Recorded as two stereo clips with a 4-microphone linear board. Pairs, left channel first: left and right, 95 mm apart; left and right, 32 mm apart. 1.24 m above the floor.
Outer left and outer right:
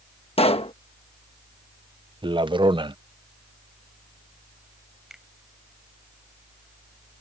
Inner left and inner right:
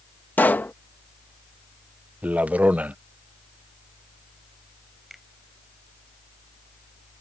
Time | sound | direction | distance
0.4 | a pop | 75° left (ahead or behind) | ?
2.2 | a man speaking | 50° right (ahead or behind) | ?
5.1 | a finger snap | 5° right (ahead or behind) | ?